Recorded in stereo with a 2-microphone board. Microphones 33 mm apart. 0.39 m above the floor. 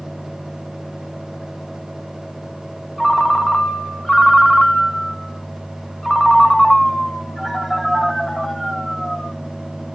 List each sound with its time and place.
3.0 s a ringtone: 5° left (ahead or behind), 1.3 m